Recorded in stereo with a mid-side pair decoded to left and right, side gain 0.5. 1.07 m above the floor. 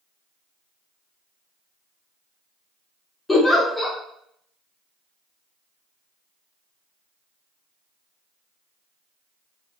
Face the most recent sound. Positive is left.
turn(degrees=20)